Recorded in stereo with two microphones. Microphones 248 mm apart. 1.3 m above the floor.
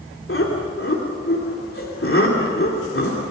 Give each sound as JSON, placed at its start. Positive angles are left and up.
{"t": 0.3, "sound": "laughter", "side_deg": 55, "distance_m": 3.0}